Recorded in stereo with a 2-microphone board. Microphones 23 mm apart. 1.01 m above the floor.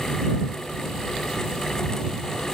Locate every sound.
Only background noise.